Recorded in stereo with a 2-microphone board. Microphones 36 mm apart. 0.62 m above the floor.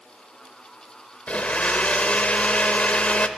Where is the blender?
40° left (ahead or behind), 0.6 m.